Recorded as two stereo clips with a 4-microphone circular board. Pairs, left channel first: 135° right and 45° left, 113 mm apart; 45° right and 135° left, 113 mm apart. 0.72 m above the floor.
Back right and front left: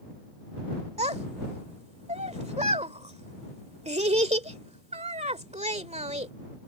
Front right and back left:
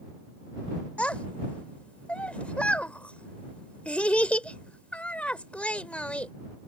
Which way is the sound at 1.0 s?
35° left.